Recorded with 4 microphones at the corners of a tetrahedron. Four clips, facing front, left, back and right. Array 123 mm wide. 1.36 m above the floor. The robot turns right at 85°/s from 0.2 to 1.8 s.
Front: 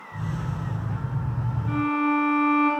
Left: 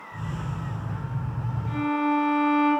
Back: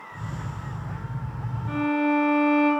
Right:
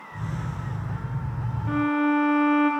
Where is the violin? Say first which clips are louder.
Right 2 dB, even; 85° right, 1.9 m; by 2.7 s 75° right, 1.9 m.